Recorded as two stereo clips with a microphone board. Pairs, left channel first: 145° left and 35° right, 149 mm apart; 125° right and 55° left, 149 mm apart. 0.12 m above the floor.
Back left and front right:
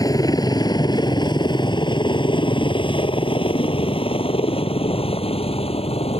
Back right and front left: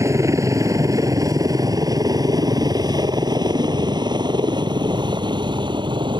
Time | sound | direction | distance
0.0 | a helicopter | 105° left | ?